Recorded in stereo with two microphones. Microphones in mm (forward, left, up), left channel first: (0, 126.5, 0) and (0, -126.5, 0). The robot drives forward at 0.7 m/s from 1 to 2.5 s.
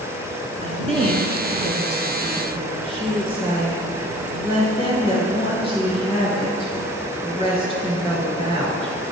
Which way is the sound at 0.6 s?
20° right (ahead or behind).